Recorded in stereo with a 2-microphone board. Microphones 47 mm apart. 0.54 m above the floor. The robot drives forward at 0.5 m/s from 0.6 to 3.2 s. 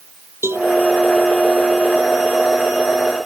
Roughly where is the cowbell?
Right.